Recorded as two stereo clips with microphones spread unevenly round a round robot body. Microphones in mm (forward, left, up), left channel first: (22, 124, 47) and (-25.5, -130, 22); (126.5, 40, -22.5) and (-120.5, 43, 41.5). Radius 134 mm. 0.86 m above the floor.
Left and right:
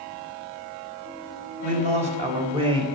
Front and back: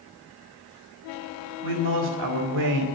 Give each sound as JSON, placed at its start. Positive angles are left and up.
{"t": 1.6, "sound": "a man speaking", "azimuth_deg": -165, "distance_m": 4.0}